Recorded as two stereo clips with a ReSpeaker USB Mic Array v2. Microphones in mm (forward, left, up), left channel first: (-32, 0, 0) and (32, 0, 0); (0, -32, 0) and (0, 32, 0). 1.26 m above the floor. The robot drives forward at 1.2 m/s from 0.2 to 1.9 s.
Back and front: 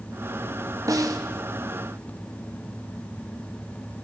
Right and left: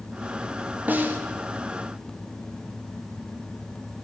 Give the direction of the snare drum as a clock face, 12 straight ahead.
11 o'clock.